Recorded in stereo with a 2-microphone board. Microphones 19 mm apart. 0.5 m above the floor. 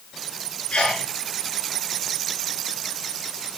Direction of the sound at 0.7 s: 80° left.